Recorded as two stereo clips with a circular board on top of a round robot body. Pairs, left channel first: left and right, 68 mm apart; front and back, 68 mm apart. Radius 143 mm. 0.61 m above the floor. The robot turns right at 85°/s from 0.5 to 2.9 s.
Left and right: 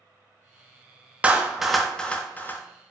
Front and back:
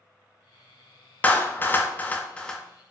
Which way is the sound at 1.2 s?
40° right.